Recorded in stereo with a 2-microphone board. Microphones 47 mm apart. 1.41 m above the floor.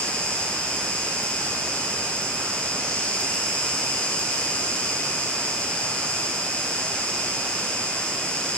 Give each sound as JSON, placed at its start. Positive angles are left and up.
{"t": 0.0, "sound": "an insect", "side_deg": 20, "distance_m": 6.5}